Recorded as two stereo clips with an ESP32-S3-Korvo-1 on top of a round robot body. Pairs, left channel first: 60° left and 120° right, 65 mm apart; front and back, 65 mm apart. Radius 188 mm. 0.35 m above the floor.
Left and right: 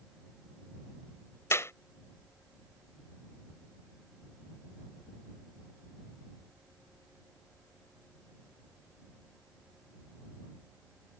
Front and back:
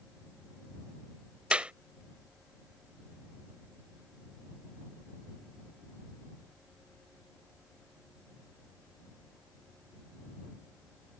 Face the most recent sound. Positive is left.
turn(degrees=105)